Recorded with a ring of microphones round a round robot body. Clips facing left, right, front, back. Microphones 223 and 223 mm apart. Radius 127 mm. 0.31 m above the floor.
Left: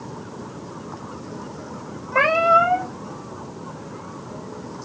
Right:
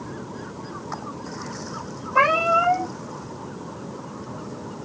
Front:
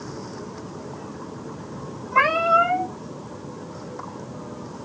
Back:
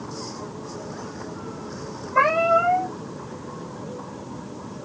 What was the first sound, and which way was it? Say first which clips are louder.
A cat meowing: left 3 dB, back 2 dB; 25° left.